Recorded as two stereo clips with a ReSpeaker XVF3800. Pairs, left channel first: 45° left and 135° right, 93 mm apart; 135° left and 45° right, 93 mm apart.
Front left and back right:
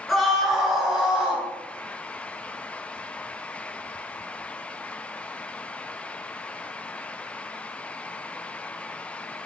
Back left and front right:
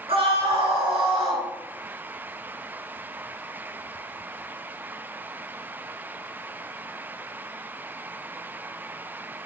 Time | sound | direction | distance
0.1 | a scream | 45° right | 7.5 m